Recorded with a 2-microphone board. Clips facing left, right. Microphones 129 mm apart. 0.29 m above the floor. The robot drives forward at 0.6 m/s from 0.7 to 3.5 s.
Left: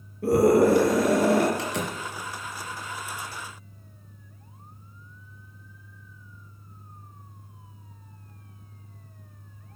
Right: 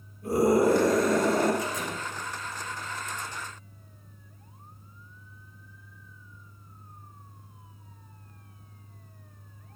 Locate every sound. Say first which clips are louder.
0.2 s a scream: left 4 dB; 75° left (ahead or behind), 6 m
1.6 s a door slam: left 2 dB; 75° left (ahead or behind), 4 m